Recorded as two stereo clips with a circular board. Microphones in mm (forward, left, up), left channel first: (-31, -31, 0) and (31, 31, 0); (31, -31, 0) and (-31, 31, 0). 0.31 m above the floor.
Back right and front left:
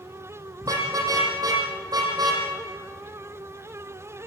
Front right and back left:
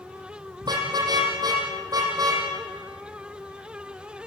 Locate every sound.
0.6 s a car horn: 95° left, 5.5 m; by 2.4 s 90° left, 6 m